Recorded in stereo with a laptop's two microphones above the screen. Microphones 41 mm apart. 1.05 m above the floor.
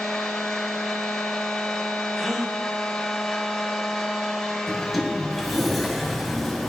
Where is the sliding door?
Centre (ahead or behind), 0.6 m.